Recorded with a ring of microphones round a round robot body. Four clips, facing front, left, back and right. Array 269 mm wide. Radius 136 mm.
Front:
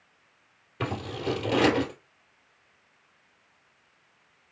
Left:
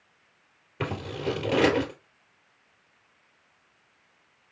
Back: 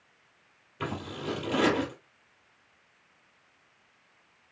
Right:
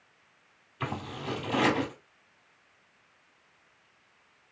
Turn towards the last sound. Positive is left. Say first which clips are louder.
# left 5 dB, front 3 dB
turn(degrees=60)